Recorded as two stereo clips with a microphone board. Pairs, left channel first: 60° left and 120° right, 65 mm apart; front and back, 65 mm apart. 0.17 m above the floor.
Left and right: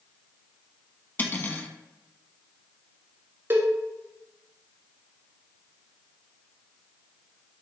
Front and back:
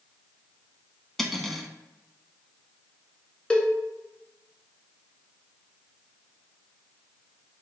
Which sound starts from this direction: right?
A cowbell, at 3.5 s.